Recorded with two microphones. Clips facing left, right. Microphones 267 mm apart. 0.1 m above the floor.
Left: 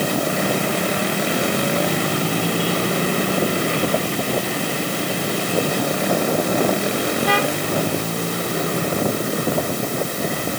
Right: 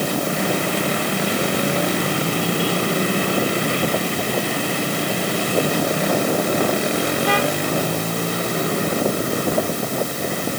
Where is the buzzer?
No buzzer in this recording.